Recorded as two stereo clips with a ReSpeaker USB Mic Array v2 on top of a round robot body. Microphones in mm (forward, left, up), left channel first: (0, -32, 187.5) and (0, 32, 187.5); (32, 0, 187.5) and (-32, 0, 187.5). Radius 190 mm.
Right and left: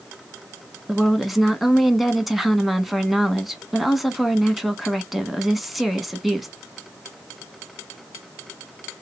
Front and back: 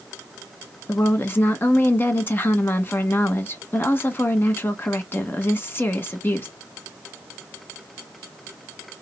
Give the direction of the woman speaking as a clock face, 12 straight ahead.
12 o'clock.